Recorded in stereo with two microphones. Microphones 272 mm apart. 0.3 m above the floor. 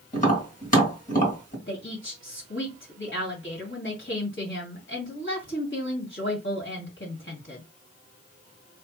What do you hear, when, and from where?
0.1 s tapping: 30° left (ahead or behind), 2.5 m
1.7 s a woman speaking: 45° left (ahead or behind), 2 m